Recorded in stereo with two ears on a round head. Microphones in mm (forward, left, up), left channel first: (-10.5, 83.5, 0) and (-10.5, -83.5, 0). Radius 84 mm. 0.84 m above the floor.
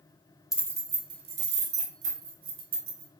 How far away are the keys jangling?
About 0.5 m.